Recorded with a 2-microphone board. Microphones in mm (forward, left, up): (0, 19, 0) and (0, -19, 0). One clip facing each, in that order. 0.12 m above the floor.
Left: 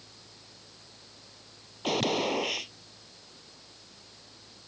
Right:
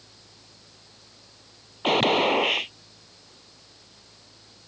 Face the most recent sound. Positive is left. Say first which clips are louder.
# right 7 dB
turn(degrees=-40)  # may be behind; listen again after turning